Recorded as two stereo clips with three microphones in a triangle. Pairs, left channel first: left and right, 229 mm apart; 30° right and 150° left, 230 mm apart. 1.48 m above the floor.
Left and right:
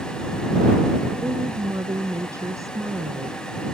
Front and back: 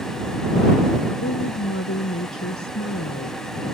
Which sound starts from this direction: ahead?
A woman speaking, at 1.2 s.